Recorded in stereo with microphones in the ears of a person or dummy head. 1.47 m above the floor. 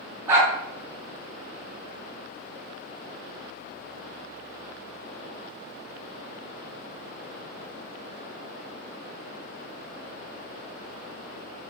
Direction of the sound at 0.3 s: 15° right (ahead or behind).